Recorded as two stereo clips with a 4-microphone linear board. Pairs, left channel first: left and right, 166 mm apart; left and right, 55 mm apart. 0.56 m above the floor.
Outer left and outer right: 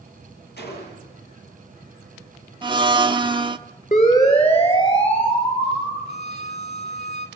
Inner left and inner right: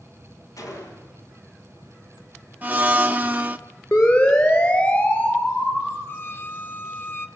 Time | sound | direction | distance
0.6 | a gunshot | 90° left | 5 m
2.6 | a blender | 30° right (ahead or behind) | 0.9 m
3.9 | a siren | 50° left (ahead or behind) | 6.5 m
6.1 | a violin | 40° left (ahead or behind) | 1.2 m